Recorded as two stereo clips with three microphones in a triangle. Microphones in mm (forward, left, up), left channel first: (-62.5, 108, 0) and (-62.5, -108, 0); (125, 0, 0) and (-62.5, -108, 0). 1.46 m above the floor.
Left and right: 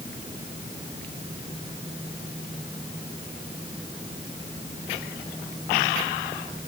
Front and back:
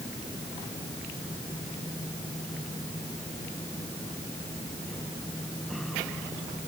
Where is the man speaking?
I don't hear a man speaking.